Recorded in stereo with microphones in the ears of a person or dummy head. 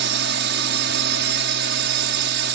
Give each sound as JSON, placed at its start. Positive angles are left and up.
{"t": 0.0, "sound": "a drone", "side_deg": -55}